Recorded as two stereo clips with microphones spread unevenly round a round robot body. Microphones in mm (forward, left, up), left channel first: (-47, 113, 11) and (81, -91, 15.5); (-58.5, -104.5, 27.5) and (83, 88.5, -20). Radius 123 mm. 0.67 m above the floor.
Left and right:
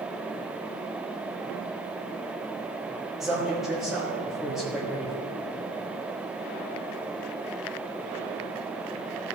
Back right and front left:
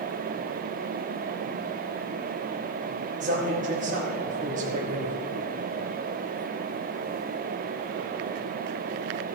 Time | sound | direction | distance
3.2 | a man speaking | 30° left | 1.4 m